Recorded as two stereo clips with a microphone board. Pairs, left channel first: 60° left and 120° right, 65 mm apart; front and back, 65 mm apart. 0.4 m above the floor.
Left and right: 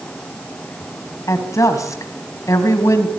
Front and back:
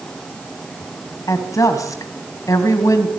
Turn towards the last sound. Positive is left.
turn(degrees=30)